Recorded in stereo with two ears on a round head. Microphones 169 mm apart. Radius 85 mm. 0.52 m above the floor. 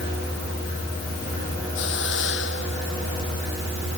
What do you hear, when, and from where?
1.8 s a hiss: 65° left (ahead or behind)